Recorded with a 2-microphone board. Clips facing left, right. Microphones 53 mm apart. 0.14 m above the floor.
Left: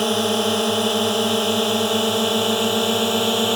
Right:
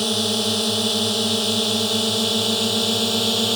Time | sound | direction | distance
0.0 | a drone | 30° left (ahead or behind) | ?